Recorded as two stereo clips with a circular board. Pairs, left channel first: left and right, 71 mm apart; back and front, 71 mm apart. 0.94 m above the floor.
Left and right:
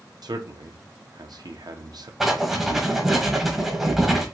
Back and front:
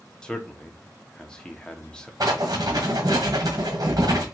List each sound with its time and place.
0.2 s a man speaking: 100° right, 0.7 m
2.2 s writing: 5° right, 1.2 m